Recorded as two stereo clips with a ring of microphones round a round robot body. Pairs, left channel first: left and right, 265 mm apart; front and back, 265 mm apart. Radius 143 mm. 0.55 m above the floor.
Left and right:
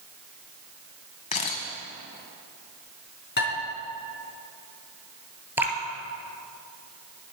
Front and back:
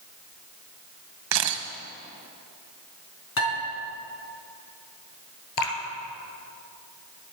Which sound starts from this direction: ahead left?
Dishes clattering, at 3.4 s.